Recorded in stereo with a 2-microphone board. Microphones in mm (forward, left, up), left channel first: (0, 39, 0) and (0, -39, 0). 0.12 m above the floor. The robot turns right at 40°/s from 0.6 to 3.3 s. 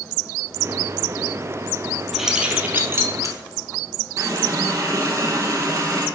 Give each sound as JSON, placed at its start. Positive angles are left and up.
{"t": 2.1, "sound": "keys jangling", "side_deg": -5, "distance_m": 1.8}
{"t": 4.2, "sound": "a running tap", "side_deg": -45, "distance_m": 2.0}